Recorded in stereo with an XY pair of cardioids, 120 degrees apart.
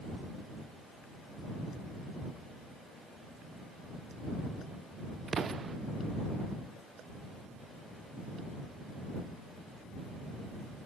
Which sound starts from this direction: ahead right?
An explosion, at 5.3 s.